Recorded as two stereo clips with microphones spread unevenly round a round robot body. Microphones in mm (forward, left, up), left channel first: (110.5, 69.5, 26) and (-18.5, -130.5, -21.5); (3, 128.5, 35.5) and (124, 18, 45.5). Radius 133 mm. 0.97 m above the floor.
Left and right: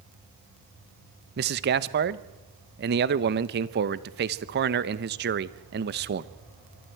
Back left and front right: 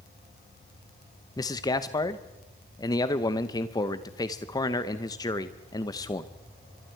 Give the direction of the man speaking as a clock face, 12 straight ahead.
5 o'clock.